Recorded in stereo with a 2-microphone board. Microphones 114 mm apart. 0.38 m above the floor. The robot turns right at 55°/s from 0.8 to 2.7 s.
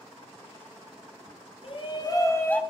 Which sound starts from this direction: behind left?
A shout, at 1.6 s.